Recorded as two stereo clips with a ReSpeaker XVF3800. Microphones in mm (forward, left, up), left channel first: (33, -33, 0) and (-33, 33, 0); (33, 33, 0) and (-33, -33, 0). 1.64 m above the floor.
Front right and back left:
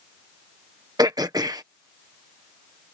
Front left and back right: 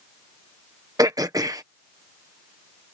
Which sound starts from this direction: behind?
Throat clearing, at 1.0 s.